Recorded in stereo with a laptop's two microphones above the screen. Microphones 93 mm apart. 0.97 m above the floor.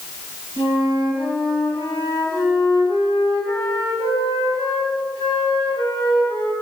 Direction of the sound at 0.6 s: 75° left (ahead or behind).